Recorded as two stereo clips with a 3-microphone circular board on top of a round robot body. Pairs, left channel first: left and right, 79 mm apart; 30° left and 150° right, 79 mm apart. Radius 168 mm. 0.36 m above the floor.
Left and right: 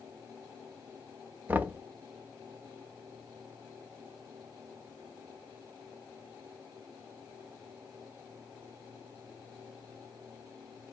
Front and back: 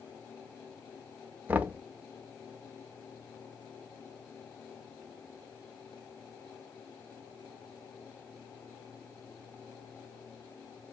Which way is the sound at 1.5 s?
115° right.